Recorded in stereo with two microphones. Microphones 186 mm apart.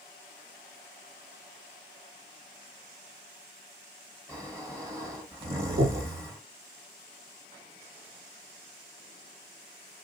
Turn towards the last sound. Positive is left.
turn(degrees=-70)  # may be behind; listen again after turning